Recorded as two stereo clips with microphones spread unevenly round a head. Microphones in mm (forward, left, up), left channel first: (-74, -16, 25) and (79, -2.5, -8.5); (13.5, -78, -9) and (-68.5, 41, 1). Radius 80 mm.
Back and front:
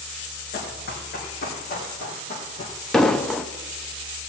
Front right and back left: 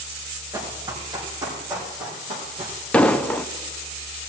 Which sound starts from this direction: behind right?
An explosion, at 2.9 s.